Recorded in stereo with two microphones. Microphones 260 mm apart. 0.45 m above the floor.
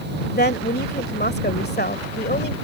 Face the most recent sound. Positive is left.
turn(degrees=40)  # may be behind; listen again after turning